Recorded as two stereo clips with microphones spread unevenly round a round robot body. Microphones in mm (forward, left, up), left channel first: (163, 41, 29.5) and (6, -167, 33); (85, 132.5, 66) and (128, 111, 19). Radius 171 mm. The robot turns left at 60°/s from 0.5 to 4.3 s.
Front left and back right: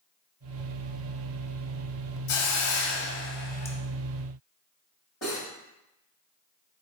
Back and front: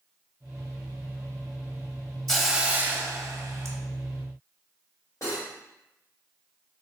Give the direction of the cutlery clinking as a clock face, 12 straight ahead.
8 o'clock.